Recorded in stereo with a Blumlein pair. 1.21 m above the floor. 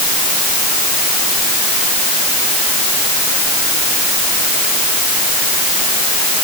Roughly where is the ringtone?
No ringtone in this recording.